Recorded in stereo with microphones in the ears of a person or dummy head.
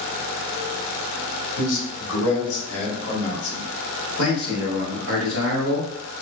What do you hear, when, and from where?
1.6 s a man speaking: 70° left (ahead or behind), 1.4 m; by 3.7 s 45° left (ahead or behind), 1.8 m
4.2 s a man speaking: 40° left (ahead or behind), 1.8 m